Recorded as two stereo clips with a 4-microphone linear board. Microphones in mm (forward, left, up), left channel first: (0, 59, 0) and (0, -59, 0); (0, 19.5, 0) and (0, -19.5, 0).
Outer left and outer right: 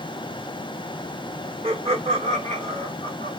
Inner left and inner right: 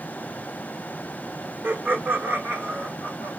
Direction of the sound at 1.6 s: 55° right (ahead or behind).